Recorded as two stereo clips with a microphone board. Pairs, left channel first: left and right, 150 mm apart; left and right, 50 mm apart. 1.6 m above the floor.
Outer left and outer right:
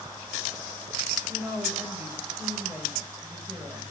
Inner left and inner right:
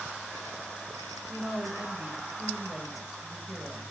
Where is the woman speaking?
15° right (ahead or behind), 7 m.